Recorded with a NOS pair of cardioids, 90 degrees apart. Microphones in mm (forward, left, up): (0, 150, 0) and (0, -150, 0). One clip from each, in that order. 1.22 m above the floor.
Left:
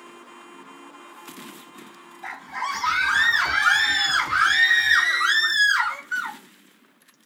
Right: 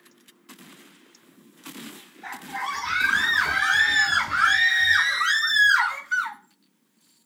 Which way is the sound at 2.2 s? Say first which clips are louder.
Left 1 dB; 50° left.